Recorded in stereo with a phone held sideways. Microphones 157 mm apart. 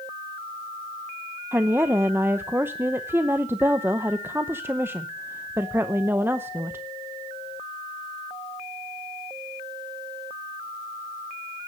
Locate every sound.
1.5 s a woman speaking: 15° right (ahead or behind), 0.7 m